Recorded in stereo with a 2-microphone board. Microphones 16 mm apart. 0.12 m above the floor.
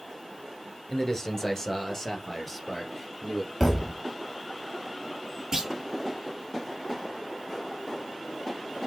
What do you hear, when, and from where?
0.9 s a man speaking: 25° left (ahead or behind), 1.6 m; by 3.5 s 10° left (ahead or behind), 3 m
3.6 s a thud: centre (ahead or behind), 3 m
5.5 s a clunk: 40° right (ahead or behind), 1.0 m